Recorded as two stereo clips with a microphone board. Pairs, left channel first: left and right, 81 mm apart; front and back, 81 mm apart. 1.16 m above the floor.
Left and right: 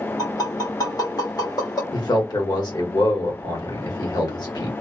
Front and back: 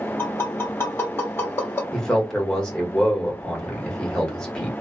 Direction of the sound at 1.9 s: 80° left.